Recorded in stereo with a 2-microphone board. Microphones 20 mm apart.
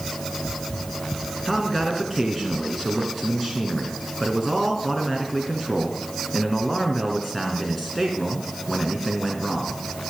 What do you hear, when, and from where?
1.4 s a man speaking: 10° left (ahead or behind), 2 m